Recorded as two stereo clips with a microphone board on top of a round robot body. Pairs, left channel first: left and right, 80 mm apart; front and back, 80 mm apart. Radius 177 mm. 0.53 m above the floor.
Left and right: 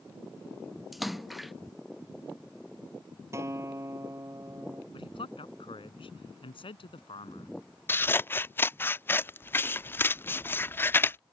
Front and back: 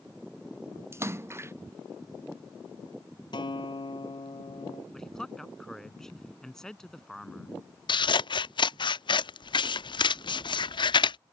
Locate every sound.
0.9 s a splash: straight behind
3.3 s a guitar: 35° right
4.9 s a man speaking: 85° left
7.9 s scissors: 25° left